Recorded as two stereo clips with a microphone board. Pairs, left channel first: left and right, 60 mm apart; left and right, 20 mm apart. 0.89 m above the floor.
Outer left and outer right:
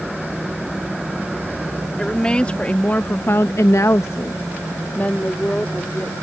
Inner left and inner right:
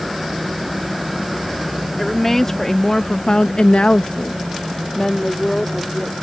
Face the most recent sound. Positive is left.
turn(degrees=20)  # may be behind; listen again after turning